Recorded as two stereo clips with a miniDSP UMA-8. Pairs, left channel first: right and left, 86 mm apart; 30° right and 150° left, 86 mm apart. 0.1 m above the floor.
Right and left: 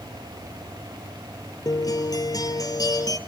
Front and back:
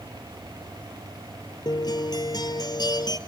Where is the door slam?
No door slam in this recording.